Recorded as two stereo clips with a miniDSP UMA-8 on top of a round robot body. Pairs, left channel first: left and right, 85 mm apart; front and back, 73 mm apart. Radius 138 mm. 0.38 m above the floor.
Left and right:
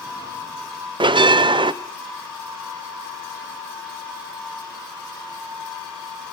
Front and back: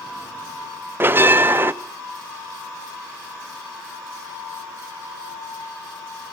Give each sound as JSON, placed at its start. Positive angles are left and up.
{"t": 1.0, "sound": "a bell", "azimuth_deg": -115, "distance_m": 0.5}